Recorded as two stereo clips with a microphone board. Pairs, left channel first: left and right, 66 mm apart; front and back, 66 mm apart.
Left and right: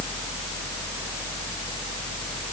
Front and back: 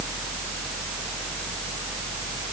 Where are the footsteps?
No footsteps in this recording.